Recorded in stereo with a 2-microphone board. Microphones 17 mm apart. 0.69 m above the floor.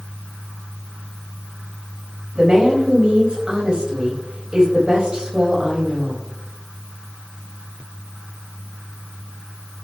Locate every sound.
2.4 s a woman speaking: 50° right (ahead or behind), 3.5 m